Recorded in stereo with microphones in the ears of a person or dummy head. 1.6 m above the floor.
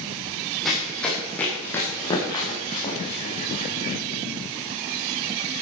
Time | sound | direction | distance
0.7 | running footsteps | 5° left (ahead or behind) | 5 m